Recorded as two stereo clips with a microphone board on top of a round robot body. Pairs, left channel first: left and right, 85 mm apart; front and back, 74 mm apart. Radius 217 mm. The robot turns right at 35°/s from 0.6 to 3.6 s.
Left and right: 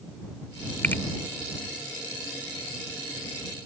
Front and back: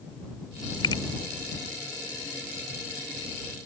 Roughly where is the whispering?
I don't hear whispering.